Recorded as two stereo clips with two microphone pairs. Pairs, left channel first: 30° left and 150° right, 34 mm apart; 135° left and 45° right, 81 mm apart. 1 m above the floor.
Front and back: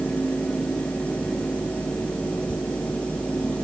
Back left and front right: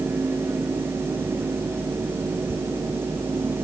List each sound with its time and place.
Only background noise.